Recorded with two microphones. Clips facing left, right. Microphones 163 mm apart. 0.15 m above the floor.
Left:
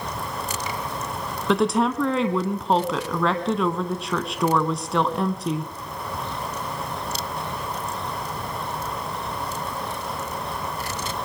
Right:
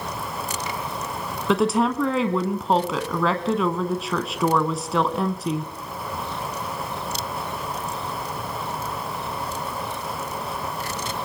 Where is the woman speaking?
Centre (ahead or behind), 1.1 m.